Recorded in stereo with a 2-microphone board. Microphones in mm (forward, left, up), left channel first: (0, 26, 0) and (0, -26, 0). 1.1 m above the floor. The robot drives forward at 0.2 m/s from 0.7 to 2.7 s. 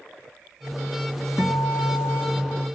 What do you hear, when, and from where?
1.4 s a guitar: 55° left (ahead or behind), 3.5 m; by 2.6 s 60° left (ahead or behind), 3.5 m